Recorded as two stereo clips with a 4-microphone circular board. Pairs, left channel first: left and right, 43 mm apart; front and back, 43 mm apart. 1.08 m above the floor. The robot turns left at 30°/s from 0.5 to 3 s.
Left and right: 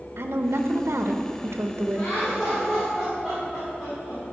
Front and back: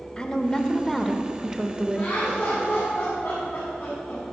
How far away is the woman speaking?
About 0.8 m.